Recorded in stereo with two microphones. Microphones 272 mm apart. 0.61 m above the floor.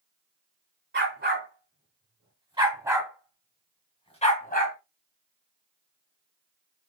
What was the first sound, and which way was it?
A dog barking, 40° right (ahead or behind).